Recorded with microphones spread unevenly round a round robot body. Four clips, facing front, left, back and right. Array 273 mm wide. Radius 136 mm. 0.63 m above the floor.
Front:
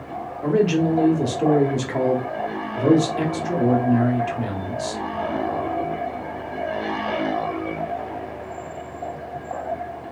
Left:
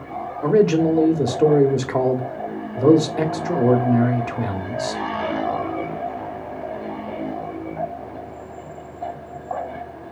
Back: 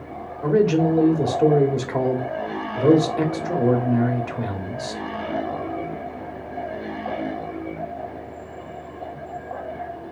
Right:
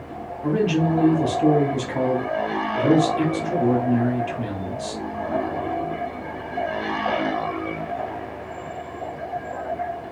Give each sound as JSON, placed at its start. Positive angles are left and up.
{"t": 0.4, "sound": "a man speaking", "azimuth_deg": 85, "distance_m": 1.2}